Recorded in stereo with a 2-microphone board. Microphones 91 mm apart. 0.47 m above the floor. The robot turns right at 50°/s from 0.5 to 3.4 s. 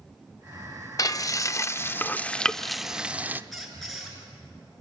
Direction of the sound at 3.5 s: Centre (ahead or behind).